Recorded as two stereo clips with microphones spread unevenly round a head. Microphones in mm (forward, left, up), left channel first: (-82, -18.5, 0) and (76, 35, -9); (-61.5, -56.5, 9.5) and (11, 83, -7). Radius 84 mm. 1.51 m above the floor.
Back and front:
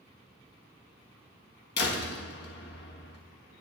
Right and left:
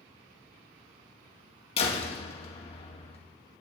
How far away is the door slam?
About 1.7 m.